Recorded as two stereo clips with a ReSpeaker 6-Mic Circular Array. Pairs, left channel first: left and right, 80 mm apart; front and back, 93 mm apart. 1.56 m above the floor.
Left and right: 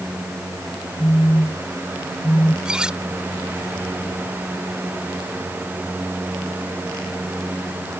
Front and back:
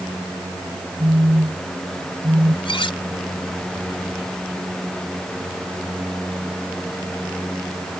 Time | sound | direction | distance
1.0 | a phone buzzing | 125° left | ?
2.6 | cutlery clinking | 10° right | ?